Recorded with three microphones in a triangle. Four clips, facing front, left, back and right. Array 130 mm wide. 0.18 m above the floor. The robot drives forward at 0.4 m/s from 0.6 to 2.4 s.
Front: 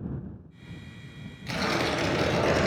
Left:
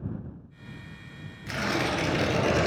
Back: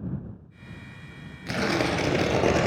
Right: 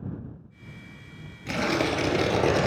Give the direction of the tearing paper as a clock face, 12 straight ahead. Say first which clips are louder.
Right 3 dB, back 2 dB; 5 o'clock.